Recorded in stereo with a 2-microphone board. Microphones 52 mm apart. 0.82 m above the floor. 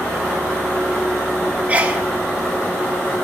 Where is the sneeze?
30° right (ahead or behind), 1.5 m.